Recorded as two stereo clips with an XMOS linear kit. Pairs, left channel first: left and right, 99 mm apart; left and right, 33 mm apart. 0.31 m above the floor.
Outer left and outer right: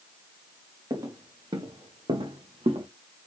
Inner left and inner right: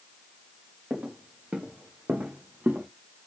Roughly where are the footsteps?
Right.